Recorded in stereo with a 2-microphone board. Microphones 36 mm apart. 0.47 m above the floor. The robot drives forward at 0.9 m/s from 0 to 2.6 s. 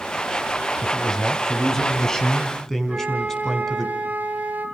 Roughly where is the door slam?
I don't hear a door slam.